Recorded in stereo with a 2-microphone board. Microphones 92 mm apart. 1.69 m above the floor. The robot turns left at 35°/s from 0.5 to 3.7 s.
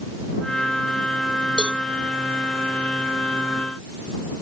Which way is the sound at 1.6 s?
10° right (ahead or behind).